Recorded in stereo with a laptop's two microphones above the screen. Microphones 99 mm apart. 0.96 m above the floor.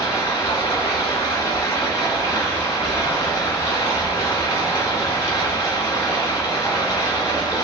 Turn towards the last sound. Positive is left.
turn(degrees=35)  # may be behind; listen again after turning